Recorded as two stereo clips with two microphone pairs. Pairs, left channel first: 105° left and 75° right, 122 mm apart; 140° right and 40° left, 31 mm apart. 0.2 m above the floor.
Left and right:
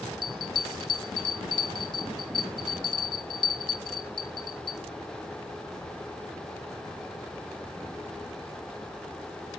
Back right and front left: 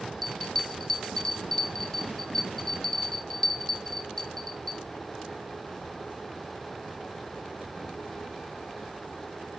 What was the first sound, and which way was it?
A bell, 150° left.